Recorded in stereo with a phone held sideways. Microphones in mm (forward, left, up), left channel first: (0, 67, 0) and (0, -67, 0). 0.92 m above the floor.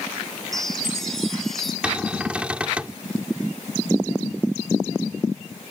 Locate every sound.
0.5 s a chime: centre (ahead or behind)
1.8 s a cupboard door: 10° right (ahead or behind)